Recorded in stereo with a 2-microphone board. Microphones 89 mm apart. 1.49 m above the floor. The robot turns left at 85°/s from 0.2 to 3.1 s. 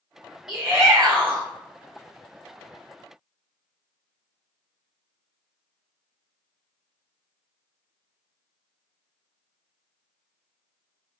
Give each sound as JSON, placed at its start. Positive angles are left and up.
{"t": 0.5, "sound": "a shout", "azimuth_deg": -5, "distance_m": 1.2}